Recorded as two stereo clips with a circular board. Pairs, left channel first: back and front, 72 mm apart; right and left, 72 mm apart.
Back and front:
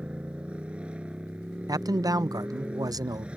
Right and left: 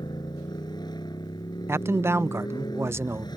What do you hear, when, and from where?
0.0 s a motorcycle: 75° right
1.7 s a man speaking: 35° left